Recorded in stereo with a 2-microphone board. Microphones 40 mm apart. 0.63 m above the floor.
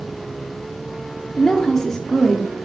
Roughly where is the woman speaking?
Centre.